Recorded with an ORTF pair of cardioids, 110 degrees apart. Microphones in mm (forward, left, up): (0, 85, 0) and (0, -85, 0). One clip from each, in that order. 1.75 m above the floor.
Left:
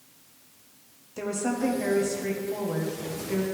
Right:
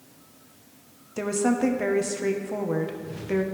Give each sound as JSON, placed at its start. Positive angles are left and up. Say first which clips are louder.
{"t": 1.2, "sound": "a woman speaking", "louder": "right 4 dB", "azimuth_deg": -30, "distance_m": 1.2}